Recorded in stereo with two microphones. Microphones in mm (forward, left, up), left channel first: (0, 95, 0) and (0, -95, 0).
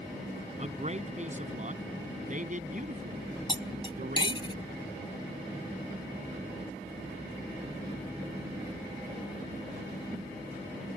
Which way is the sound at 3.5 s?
25° left (ahead or behind).